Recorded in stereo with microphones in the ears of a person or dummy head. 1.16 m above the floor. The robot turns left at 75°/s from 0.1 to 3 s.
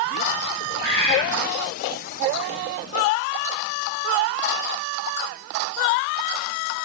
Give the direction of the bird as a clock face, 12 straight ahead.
1 o'clock.